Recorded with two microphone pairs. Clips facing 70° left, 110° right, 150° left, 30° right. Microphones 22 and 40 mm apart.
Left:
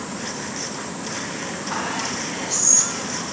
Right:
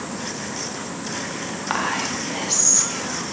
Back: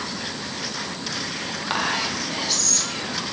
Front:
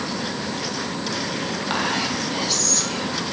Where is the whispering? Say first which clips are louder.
Right 3 dB, even; 125° right, 2.0 m.